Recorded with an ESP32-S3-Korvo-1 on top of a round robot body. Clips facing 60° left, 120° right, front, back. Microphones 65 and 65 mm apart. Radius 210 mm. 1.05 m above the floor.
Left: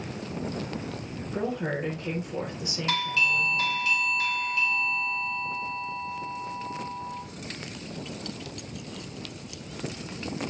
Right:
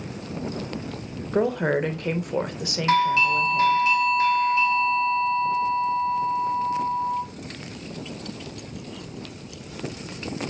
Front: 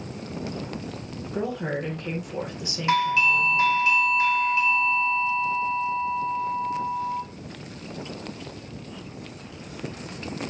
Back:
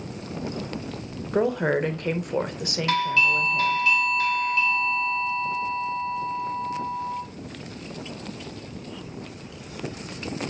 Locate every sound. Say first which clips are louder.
1.3 s a woman speaking: right 8 dB, back 6 dB; 145° right, 1.0 m
2.9 s a doorbell: right 8 dB, front 2 dB; 65° right, 1.0 m